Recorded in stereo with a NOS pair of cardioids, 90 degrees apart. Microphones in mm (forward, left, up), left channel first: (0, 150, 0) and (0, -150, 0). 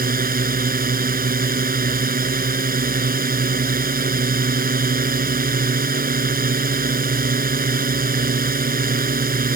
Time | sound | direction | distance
0.0 | a drone | 30° right | ?